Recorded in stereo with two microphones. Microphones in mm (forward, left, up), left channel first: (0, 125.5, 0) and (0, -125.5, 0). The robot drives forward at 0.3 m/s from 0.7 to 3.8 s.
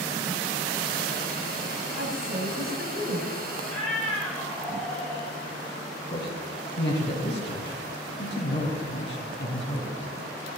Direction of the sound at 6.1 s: 45° left (ahead or behind).